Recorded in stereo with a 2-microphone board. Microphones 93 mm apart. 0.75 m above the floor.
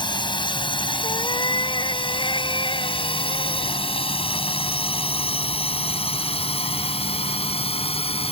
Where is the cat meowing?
50° left (ahead or behind).